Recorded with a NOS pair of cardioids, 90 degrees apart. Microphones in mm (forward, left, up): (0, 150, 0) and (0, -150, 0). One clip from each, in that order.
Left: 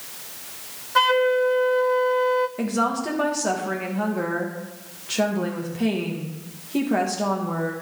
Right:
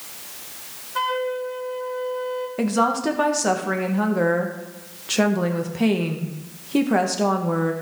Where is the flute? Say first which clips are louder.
Left 6 dB; 40° left, 0.6 m.